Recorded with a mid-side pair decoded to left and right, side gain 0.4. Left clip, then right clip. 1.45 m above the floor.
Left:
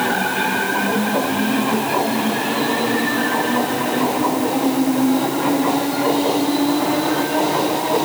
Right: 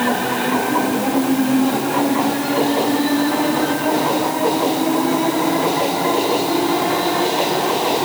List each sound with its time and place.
Only background noise.